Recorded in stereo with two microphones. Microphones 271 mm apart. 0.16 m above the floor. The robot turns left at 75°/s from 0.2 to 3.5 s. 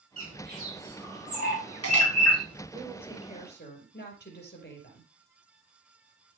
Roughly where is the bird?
Right.